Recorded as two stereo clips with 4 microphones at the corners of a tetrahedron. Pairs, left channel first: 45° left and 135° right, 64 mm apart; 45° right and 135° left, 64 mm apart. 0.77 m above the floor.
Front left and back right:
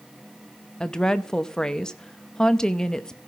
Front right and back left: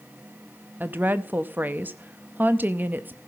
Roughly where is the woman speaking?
Behind left.